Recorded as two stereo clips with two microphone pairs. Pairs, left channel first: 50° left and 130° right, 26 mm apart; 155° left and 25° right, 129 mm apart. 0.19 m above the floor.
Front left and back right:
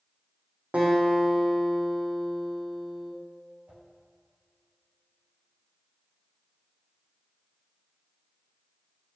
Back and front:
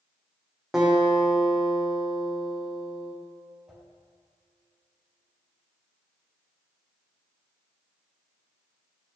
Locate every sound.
0.7 s a guitar: 110° right, 3 m
3.7 s a whoosh: 110° right, 3.5 m